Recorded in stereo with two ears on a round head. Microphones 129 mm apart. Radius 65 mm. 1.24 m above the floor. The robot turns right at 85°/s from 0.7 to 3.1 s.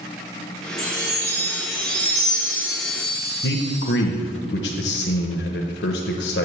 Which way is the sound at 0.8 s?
160° left.